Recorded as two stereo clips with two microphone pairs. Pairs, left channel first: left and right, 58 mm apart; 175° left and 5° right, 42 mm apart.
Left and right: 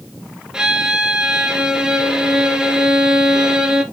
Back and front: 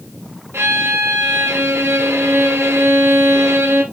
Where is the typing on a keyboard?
No typing on a keyboard in this recording.